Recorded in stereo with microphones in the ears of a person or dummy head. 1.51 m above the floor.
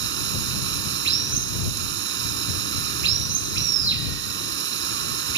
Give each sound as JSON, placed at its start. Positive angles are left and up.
{"t": 0.0, "sound": "running water", "side_deg": -75}